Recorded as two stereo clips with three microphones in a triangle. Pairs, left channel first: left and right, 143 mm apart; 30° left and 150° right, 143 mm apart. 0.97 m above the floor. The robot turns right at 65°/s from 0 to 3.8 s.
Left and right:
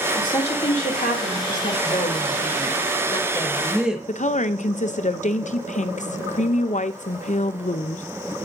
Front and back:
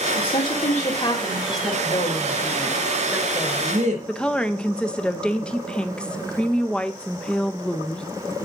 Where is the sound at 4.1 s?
110° left, 0.5 m.